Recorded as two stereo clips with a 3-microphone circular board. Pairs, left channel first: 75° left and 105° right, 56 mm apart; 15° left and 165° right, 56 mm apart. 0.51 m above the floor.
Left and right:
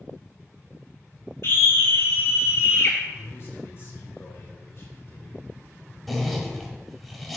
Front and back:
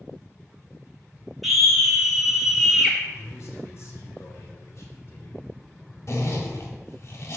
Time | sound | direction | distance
1.4 | a scream | 105° left | 3 m
3.1 | a man speaking | 40° left | 2 m
6.1 | a zipper | 15° right | 1.7 m